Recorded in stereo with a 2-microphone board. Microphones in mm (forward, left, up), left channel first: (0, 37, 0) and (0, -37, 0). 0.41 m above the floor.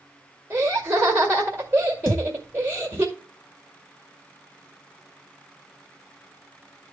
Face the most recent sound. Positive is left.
turn(degrees=55)  # may be behind; listen again after turning